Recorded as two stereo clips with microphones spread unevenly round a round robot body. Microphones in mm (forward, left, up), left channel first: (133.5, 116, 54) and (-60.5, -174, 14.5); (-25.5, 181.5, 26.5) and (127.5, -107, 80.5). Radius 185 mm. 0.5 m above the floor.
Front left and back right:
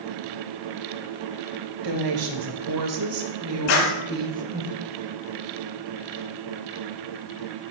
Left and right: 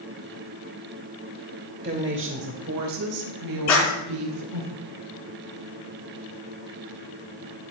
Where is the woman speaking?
130° right, 3 m; by 4.7 s 55° right, 2.5 m.